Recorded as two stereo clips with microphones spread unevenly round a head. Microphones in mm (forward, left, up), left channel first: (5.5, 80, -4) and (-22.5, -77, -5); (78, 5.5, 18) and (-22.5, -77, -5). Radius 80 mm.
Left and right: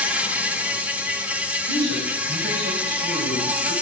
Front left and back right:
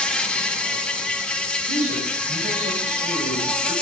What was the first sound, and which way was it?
An insect, 25° right.